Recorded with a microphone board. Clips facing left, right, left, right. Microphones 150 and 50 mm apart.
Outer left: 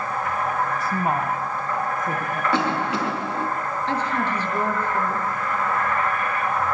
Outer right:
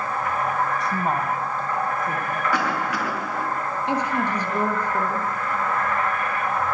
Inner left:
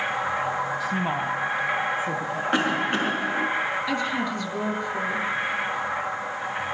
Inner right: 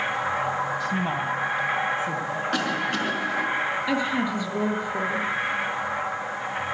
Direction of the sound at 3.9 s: 15° right (ahead or behind).